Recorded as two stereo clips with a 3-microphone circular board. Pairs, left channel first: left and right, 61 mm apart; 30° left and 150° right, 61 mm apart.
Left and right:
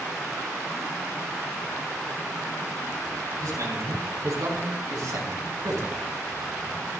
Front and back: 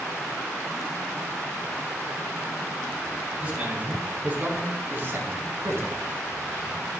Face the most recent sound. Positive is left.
turn(degrees=-115)